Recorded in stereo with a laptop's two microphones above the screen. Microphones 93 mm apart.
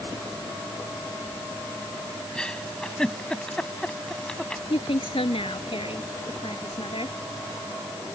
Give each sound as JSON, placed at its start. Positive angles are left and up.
{"t": 2.4, "sound": "a giggle", "side_deg": 10}
{"t": 4.7, "sound": "a woman speaking", "side_deg": 90}